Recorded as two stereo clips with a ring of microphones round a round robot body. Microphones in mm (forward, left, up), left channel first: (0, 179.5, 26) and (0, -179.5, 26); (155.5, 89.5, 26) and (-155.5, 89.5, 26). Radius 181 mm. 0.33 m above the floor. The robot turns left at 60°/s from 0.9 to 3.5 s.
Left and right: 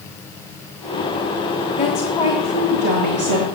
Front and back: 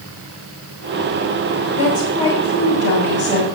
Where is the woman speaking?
20° left, 1.8 m; by 3.5 s 80° right, 1.8 m.